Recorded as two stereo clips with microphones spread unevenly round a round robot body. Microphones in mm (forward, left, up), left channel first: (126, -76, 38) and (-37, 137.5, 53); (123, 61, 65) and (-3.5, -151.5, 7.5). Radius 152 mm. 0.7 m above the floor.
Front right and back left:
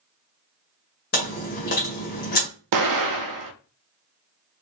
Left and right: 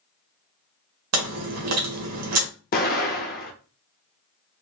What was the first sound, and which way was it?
Chewing, 110° right.